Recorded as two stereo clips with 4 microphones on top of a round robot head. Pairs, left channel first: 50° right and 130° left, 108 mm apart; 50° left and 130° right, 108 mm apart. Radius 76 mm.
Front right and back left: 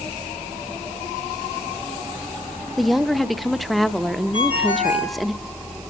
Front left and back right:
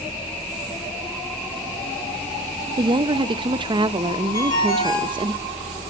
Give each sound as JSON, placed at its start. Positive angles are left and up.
{"t": 2.8, "sound": "a woman speaking", "azimuth_deg": -140, "distance_m": 0.8}
{"t": 4.3, "sound": "a ringtone", "azimuth_deg": -5, "distance_m": 7.0}